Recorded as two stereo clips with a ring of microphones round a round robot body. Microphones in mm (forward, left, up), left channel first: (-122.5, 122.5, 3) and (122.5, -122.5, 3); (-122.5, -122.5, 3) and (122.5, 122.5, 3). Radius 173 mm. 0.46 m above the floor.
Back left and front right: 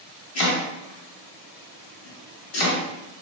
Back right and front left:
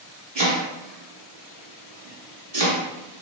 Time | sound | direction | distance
0.3 | chopping | 115° left | 1.2 m